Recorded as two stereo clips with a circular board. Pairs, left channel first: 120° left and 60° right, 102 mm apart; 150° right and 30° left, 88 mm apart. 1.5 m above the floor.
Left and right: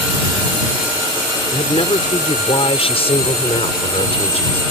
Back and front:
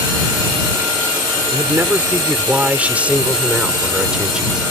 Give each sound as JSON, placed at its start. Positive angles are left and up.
{"t": 1.5, "sound": "a man speaking", "azimuth_deg": 95}